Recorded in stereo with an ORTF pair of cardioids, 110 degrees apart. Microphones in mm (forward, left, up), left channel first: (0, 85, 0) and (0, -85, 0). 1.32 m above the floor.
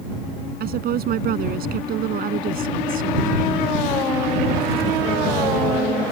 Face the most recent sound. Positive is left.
turn(degrees=-55)